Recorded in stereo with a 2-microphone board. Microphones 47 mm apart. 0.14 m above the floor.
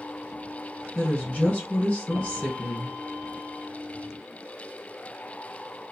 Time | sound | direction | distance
0.9 | a woman speaking | 15° left (ahead or behind) | 1.6 m